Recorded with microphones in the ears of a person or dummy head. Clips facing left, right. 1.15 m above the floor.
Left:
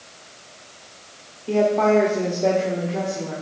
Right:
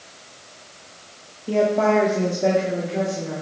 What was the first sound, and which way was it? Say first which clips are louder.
A woman speaking: left 1 dB; 5° right (ahead or behind).